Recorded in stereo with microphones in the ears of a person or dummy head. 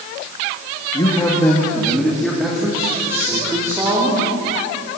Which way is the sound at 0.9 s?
20° left (ahead or behind).